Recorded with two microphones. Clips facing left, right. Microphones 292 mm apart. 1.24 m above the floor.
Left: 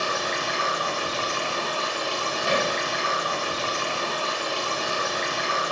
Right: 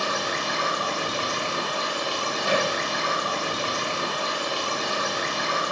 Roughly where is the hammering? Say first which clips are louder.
Right 1 dB; centre.